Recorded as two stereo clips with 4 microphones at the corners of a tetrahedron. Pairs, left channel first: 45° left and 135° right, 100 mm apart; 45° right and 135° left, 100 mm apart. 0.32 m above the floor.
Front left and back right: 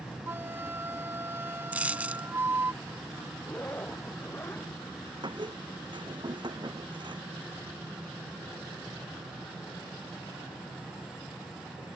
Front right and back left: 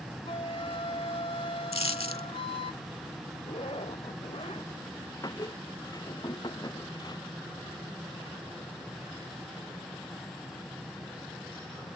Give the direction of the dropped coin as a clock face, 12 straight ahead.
2 o'clock.